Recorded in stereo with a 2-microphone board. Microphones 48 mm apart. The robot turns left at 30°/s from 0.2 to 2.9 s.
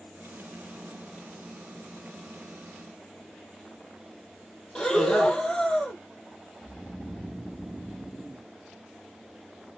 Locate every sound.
4.8 s breathing: 15° left (ahead or behind), 1.5 m
6.6 s snoring: 5° right (ahead or behind), 0.8 m